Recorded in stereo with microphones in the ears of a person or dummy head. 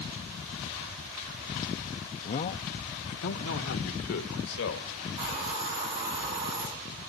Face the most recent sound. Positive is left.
turn(degrees=-30)  # may be behind; listen again after turning